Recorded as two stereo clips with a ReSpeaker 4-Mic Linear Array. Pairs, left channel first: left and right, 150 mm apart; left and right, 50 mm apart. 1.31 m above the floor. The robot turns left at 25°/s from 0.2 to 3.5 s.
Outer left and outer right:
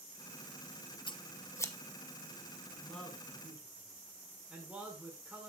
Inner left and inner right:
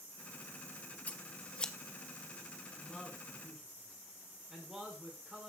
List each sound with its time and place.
1.1 s scissors: 35° left (ahead or behind), 0.9 m; by 1.7 s 15° left (ahead or behind), 0.9 m
2.7 s a man speaking: 10° left (ahead or behind), 6 m; by 5.5 s 10° right (ahead or behind), 6 m